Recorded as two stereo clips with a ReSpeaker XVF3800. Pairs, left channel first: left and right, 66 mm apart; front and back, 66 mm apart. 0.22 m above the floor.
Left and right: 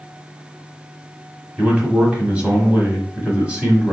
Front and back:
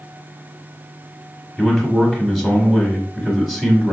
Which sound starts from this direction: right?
A man speaking, at 1.6 s.